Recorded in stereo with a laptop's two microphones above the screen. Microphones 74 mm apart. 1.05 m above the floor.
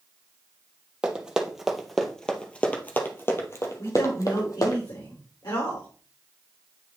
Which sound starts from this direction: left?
A man speaking, at 3.8 s.